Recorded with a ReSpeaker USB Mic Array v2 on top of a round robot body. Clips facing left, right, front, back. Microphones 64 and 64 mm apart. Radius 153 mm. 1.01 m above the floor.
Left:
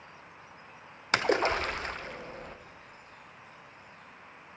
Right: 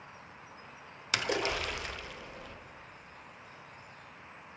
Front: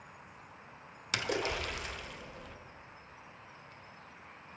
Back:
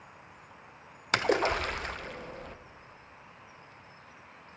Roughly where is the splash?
Behind left.